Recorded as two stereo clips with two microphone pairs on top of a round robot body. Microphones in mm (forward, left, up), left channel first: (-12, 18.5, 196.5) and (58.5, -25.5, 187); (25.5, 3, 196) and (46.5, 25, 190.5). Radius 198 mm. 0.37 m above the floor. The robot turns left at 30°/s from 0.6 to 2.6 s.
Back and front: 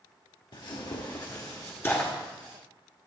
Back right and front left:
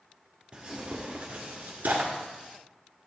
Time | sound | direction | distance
0.5 | tearing paper | 120° left | 1.4 m